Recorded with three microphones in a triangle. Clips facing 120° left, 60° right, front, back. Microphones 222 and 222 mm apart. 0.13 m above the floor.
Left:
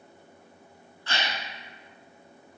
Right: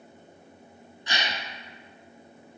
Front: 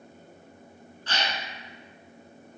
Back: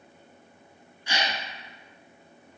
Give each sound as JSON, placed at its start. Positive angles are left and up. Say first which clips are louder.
{"t": 1.1, "sound": "a gasp", "louder": "even, back 1 dB", "azimuth_deg": -115, "distance_m": 0.9}